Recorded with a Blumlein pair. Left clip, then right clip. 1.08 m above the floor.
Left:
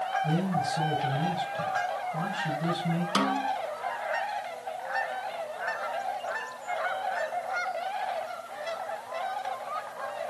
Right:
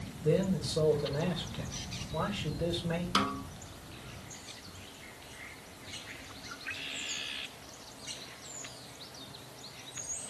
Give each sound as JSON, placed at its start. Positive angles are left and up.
{"t": 0.2, "sound": "a man speaking", "azimuth_deg": -45, "distance_m": 5.0}
{"t": 3.1, "sound": "a snare drum", "azimuth_deg": 10, "distance_m": 0.8}